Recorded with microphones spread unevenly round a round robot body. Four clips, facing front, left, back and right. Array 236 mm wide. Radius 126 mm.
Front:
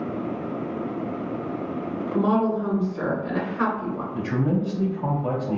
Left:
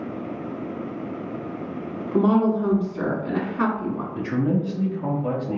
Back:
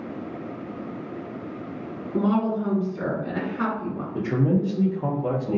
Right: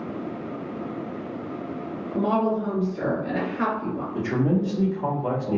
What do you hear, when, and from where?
2.1 s a woman speaking: 80° left, 1.8 m
4.1 s a man speaking: 135° right, 1.2 m